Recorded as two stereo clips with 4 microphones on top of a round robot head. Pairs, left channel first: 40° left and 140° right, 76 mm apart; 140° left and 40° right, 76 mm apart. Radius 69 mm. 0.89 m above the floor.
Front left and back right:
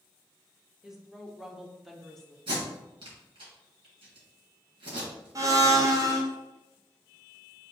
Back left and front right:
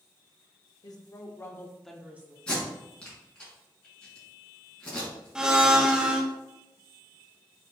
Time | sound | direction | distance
0.8 | a woman speaking | 140° left | 1.3 m
2.5 | tape being pulled | 145° right | 2 m
5.3 | a blender | 120° right | 0.9 m